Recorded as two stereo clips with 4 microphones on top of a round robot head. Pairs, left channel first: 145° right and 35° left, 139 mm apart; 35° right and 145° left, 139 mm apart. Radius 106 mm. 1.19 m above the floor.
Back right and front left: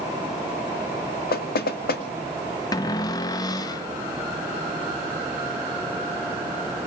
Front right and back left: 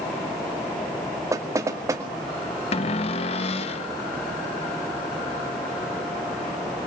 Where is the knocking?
145° right, 2 m.